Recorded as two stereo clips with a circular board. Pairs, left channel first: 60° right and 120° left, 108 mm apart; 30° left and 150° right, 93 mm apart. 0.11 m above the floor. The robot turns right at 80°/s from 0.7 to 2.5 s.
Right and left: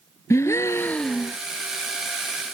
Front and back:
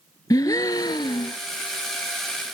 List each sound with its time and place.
0.3 s a gasp: 5° right; by 1.4 s 50° left